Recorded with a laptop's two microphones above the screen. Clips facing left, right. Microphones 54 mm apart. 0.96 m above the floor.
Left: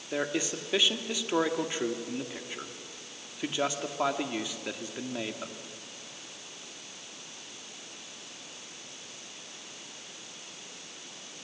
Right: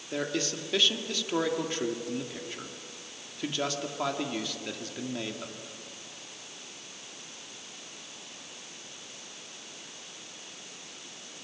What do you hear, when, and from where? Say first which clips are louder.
0.1 s a man speaking: left 1 dB; 15° left (ahead or behind), 1.9 m